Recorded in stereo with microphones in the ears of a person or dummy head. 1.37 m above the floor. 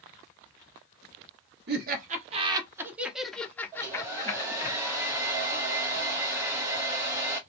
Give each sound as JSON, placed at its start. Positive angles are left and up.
{"t": 1.7, "sound": "laughter", "side_deg": -55, "distance_m": 0.8}
{"t": 3.7, "sound": "a hair dryer", "side_deg": -20, "distance_m": 0.6}